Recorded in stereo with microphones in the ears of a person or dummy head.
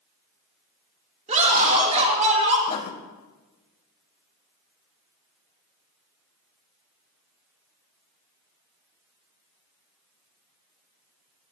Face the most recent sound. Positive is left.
turn(degrees=40)  # may be behind; listen again after turning